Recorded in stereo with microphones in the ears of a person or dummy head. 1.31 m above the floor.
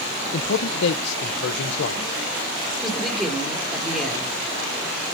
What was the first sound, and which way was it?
A man speaking, 70° left (ahead or behind).